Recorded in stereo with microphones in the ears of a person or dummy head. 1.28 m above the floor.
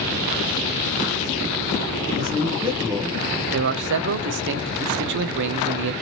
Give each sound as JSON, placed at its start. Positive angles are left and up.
{"t": 2.2, "sound": "a man speaking", "side_deg": -25, "distance_m": 0.9}
{"t": 3.5, "sound": "a man speaking", "side_deg": -60, "distance_m": 0.5}